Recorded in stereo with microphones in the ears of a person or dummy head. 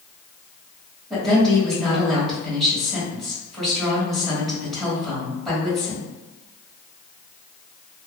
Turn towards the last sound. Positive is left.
turn(degrees=0)  # may be behind; listen again after turning